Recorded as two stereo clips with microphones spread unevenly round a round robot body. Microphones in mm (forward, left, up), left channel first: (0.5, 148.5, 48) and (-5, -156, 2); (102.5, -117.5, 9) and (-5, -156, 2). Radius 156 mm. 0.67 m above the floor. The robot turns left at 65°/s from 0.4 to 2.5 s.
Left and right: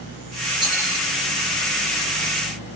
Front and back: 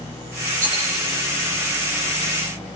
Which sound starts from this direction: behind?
A rattle, at 0.6 s.